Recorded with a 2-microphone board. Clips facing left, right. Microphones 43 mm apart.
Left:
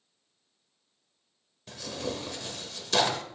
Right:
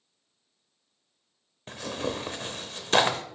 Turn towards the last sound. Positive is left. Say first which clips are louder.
# right 3 dB
turn(degrees=-40)  # may be behind; listen again after turning